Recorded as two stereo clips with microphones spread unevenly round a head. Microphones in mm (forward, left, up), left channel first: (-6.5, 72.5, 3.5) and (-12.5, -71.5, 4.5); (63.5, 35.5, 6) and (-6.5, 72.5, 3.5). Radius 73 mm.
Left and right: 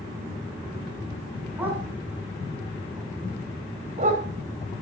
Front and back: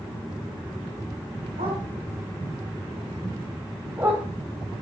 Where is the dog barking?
170° right, 5.5 m; by 4.3 s 130° right, 3 m.